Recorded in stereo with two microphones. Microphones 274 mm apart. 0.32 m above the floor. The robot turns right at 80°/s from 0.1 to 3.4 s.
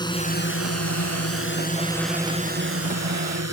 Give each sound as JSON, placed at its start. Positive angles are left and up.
{"t": 0.0, "sound": "a drone", "side_deg": 15}